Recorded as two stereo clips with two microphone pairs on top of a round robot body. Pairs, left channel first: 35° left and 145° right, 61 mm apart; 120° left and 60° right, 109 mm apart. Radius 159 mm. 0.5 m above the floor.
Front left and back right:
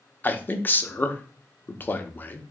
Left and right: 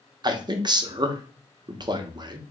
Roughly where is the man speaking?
Ahead.